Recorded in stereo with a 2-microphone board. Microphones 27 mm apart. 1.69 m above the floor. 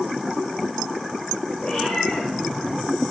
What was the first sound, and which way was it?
A cat meowing, 45° left (ahead or behind).